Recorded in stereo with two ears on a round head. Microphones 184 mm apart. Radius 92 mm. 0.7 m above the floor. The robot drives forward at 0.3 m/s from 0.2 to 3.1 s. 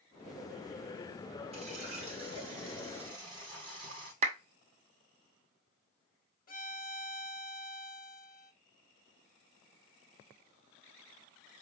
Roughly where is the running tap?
Right.